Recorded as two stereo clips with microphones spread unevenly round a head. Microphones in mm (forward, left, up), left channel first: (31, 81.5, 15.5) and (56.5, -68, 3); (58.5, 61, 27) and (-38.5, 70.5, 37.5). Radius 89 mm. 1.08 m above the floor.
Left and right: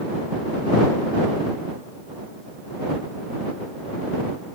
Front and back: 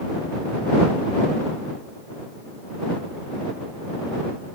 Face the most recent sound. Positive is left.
No sound to turn to.